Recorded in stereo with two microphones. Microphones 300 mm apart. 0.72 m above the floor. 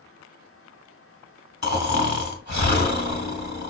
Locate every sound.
1.6 s snoring: 65° left (ahead or behind), 0.9 m